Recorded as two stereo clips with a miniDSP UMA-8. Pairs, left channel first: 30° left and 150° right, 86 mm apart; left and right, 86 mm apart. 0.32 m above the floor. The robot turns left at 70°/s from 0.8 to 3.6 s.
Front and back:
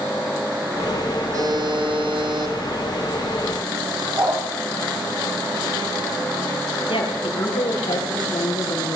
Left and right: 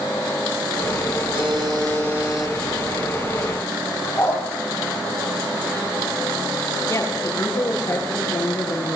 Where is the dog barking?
150° left, 5.5 m.